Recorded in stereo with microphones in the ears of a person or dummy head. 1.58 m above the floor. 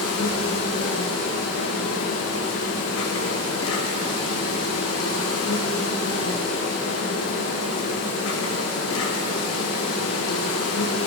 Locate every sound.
0.0 s an insect: 75° left (ahead or behind), 1.6 m